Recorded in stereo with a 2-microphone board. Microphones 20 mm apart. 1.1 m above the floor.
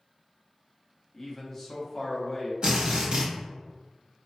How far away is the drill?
About 0.9 m.